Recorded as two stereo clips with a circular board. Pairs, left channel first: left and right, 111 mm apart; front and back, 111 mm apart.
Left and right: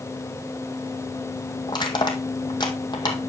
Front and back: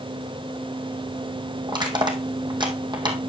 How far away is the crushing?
About 1.9 m.